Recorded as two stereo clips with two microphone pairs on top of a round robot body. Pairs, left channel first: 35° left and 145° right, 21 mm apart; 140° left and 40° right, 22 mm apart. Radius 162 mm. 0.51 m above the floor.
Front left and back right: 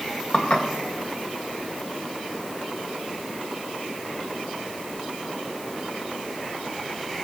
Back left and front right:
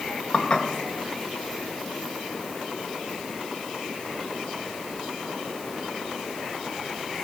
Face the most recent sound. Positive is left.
turn(degrees=70)